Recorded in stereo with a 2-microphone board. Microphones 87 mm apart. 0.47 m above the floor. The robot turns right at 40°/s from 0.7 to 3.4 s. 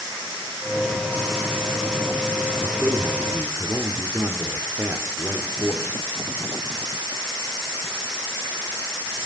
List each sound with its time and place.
2.6 s a man speaking: 30° right (ahead or behind), 1.3 m; by 6.0 s 25° right (ahead or behind), 1.3 m